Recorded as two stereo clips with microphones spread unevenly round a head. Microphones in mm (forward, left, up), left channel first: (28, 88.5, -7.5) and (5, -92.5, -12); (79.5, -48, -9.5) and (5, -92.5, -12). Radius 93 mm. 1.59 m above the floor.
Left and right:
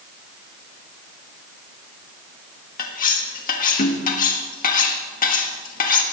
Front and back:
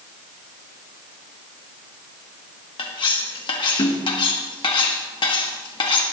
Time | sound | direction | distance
2.8 | cutlery clinking | 50° left | 1.5 m